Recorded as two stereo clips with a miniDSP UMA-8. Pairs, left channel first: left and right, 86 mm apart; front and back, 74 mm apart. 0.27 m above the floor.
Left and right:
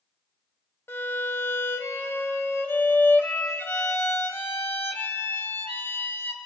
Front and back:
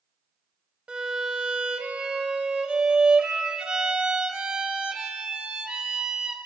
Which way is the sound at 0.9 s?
115° left.